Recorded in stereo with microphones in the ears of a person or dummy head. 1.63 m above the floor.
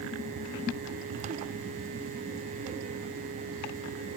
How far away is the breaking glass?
I don't hear breaking glass.